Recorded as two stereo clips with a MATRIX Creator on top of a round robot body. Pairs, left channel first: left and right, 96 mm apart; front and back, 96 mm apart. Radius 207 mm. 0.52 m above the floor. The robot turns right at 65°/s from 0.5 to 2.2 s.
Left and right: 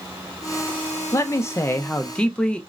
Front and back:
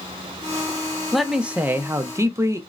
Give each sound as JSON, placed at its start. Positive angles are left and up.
{"t": 1.1, "sound": "a man speaking", "azimuth_deg": 90, "distance_m": 0.6}